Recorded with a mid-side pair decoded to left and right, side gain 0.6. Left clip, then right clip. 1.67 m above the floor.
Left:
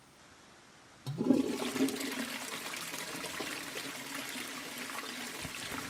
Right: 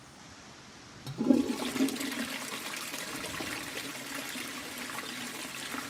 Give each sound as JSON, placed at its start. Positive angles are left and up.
{"t": 1.1, "sound": "a toilet flushing", "azimuth_deg": -5, "distance_m": 1.0}